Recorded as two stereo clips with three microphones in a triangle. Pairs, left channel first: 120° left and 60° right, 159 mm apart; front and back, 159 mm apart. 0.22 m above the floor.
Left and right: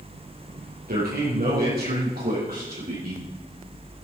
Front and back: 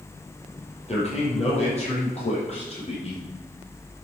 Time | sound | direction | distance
0.9 | a man speaking | 45° right | 5.5 m